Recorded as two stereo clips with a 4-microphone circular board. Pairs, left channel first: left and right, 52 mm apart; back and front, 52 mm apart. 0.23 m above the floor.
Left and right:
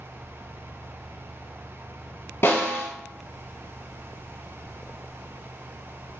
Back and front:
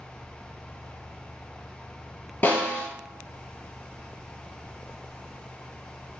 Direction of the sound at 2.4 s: 125° left.